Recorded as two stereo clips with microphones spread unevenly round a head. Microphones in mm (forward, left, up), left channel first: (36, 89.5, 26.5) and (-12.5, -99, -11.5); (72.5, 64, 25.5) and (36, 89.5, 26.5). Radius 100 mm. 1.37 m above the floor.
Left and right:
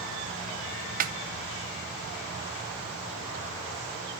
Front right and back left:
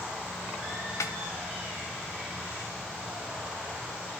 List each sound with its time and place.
1.0 s a snare drum: 55° right, 1.0 m